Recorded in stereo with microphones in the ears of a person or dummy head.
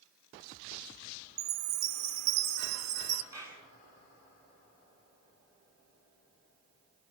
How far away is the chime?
About 1.3 m.